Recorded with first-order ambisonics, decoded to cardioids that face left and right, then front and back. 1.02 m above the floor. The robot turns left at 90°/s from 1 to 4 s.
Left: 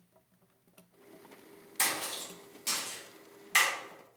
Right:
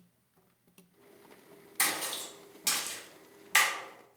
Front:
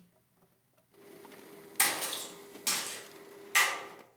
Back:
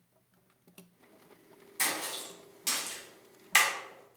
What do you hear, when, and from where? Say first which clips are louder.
1.8 s a splash: right 1 dB, front 2 dB; 5° left, 0.7 m; by 3.7 s 170° right, 0.7 m